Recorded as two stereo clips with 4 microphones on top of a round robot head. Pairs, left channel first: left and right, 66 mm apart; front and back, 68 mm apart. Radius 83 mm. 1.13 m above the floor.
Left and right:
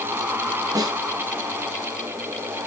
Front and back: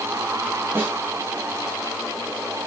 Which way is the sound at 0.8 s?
110° right.